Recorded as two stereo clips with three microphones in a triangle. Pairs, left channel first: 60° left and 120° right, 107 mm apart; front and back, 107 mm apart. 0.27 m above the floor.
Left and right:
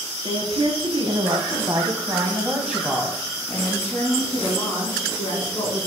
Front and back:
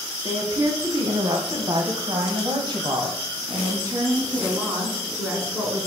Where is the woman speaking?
135° right, 2 m; by 5.9 s 110° left, 3 m.